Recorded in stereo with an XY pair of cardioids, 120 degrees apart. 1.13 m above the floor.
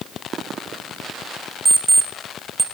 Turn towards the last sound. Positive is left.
turn(degrees=-25)